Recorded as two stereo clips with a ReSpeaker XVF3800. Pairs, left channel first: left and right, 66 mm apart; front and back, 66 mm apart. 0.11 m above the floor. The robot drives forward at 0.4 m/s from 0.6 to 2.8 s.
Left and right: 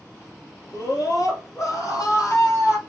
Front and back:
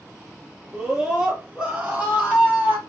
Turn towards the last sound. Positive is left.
turn(degrees=120)